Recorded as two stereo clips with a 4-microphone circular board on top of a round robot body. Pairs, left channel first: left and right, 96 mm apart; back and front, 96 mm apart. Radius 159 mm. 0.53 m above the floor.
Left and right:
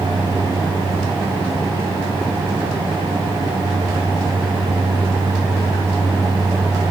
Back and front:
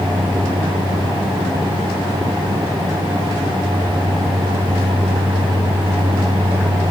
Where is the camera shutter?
No camera shutter in this recording.